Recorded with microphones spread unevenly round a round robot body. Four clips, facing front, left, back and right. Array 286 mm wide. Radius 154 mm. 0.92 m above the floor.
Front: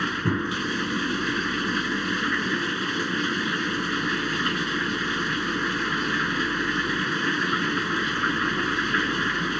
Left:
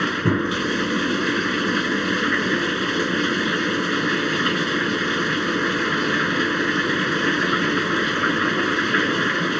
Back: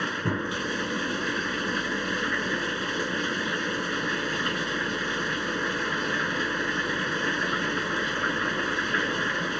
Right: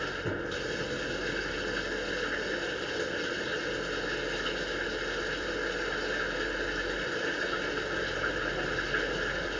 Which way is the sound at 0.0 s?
75° left.